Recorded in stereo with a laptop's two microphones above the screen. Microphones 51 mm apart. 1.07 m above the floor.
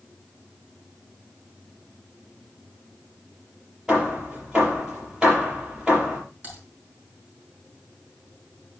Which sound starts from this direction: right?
Typing on a keyboard, at 6.4 s.